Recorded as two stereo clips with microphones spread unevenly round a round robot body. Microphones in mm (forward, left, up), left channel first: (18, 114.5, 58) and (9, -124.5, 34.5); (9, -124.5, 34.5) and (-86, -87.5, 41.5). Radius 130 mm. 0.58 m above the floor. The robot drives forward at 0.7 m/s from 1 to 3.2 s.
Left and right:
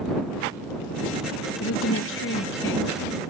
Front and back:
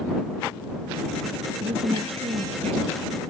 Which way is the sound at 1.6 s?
115° left.